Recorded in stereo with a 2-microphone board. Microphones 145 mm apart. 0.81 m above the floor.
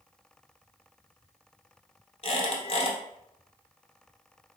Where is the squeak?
45° left (ahead or behind), 1.0 m.